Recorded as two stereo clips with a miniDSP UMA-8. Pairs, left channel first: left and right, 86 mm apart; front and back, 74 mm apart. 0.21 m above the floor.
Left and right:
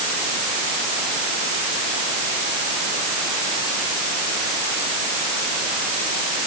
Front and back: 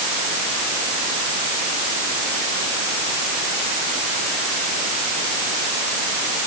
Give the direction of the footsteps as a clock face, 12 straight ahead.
I don't hear footsteps.